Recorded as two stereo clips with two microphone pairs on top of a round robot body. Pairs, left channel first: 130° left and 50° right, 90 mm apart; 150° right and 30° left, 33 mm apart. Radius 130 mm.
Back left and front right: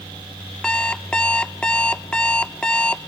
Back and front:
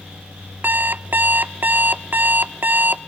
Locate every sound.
0.6 s an alarm clock: 50° left, 0.5 m